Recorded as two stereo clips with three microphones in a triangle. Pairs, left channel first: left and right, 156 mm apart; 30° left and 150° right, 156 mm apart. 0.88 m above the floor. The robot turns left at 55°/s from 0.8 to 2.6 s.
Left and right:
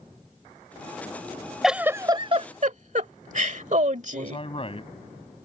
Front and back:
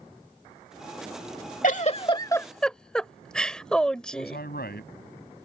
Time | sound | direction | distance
1.6 | a giggle | straight ahead | ?
4.1 | a man speaking | 35° left | ?